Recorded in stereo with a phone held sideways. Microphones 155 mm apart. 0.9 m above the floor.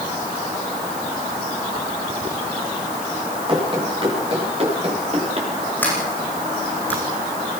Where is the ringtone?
I don't hear a ringtone.